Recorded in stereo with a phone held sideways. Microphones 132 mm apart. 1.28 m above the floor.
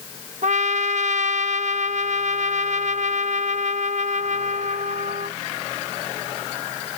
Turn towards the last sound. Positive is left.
turn(degrees=-65)  # may be behind; listen again after turning